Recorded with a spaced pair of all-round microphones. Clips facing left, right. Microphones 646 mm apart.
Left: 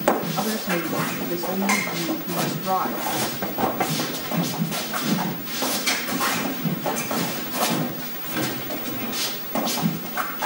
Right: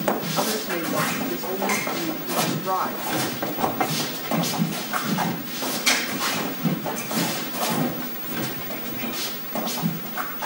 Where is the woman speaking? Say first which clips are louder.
Left 1 dB; 55° left (ahead or behind), 3 m.